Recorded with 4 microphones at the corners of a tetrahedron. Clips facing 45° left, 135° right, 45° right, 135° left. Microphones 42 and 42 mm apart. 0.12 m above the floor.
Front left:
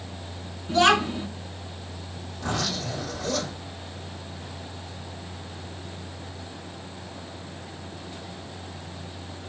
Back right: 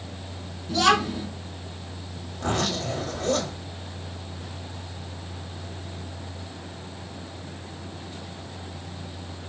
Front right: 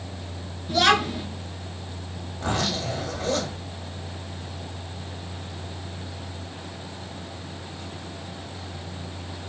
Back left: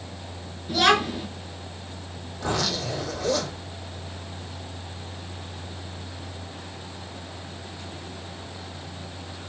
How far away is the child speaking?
About 0.8 m.